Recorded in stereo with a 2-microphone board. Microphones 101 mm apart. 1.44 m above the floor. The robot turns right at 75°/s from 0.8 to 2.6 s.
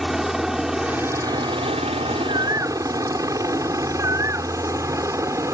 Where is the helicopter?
5° right (ahead or behind); by 5.5 s 30° right (ahead or behind).